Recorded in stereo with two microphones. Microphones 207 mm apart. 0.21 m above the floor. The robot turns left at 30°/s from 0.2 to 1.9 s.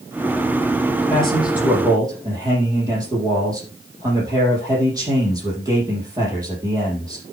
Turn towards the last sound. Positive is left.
turn(degrees=-15)  # may be behind; listen again after turning